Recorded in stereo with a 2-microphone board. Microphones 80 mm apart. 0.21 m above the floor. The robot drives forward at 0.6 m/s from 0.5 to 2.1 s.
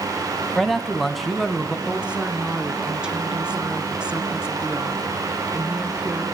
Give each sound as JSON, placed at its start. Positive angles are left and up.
{"t": 0.6, "sound": "a man speaking", "side_deg": 0, "distance_m": 1.5}
{"t": 1.9, "sound": "a woman speaking", "side_deg": -15, "distance_m": 2.0}